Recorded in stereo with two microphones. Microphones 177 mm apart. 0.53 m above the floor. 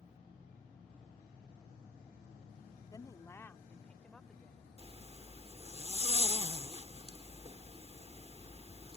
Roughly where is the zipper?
Right.